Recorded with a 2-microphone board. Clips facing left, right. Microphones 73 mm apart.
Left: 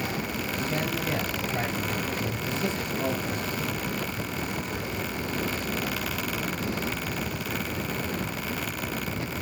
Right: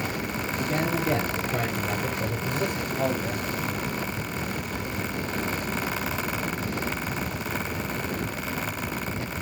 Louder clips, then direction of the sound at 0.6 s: Right 4 dB; 45° right (ahead or behind).